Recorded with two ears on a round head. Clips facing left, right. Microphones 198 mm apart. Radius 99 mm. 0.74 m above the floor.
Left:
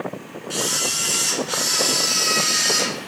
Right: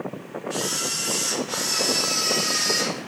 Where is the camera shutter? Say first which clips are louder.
Left 3 dB; 75° left (ahead or behind), 1.6 m.